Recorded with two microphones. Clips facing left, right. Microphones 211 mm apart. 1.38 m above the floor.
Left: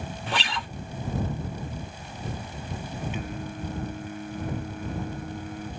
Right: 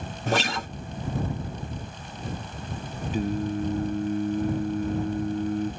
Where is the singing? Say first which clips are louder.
Right 8 dB; 35° right (ahead or behind).